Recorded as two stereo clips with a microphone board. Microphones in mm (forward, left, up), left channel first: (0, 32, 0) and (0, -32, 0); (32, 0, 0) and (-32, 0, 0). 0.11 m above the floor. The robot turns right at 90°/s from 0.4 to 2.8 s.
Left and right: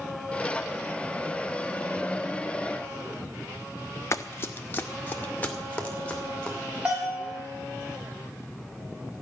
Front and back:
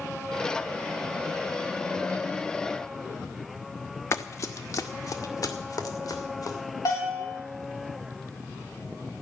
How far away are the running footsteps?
About 1.1 m.